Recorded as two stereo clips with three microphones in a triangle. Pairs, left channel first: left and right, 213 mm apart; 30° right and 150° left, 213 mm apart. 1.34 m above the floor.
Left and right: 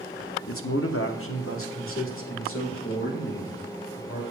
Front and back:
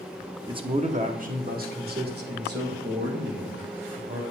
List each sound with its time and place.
0.5 s a man speaking: 85° left, 0.6 m; by 4.2 s 115° left, 3 m